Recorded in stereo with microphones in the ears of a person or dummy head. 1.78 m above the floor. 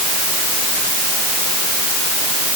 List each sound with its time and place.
Only background noise.